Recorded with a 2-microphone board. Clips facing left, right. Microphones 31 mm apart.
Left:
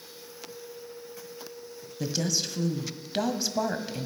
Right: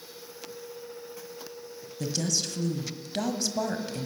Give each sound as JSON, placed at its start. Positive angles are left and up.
{"t": 2.0, "sound": "a woman speaking", "side_deg": 15, "distance_m": 1.5}